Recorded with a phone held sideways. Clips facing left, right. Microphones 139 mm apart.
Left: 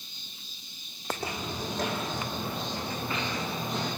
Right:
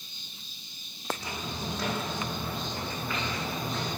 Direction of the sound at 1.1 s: 60° left (ahead or behind).